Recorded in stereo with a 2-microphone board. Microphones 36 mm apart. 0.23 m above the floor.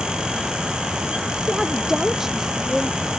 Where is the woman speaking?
10° right (ahead or behind).